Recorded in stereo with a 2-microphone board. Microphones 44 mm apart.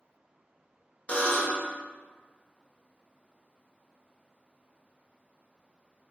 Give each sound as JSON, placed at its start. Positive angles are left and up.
{"t": 1.1, "sound": "a buzzer", "side_deg": 30, "distance_m": 0.7}